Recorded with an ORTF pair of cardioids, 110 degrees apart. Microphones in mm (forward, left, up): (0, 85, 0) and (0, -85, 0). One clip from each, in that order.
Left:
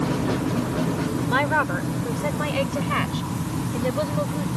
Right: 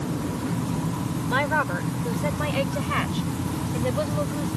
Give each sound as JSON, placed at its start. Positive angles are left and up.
{"t": 1.3, "sound": "a woman speaking", "azimuth_deg": 10}